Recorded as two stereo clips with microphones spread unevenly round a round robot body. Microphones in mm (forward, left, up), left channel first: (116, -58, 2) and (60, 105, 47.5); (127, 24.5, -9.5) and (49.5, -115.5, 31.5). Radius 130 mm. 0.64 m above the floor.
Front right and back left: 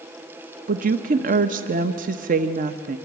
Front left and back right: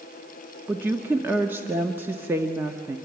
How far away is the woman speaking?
About 0.7 m.